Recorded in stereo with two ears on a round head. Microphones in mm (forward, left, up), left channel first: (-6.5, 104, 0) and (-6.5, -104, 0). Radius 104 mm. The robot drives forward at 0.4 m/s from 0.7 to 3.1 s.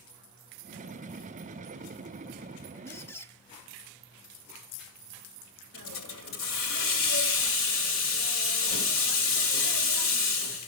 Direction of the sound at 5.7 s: 60° left (ahead or behind).